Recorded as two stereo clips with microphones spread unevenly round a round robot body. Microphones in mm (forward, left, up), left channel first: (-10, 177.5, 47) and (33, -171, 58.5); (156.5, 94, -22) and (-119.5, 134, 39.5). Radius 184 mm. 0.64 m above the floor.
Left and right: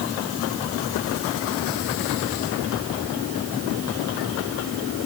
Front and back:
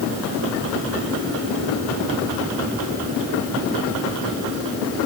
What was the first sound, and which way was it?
Only background noise.